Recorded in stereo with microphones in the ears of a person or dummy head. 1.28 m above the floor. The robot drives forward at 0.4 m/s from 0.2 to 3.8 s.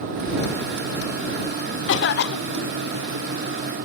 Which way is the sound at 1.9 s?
60° left (ahead or behind).